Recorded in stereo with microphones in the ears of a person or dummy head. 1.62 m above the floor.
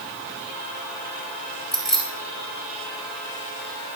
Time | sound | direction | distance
1.7 | keys jangling | centre (ahead or behind) | 1.3 m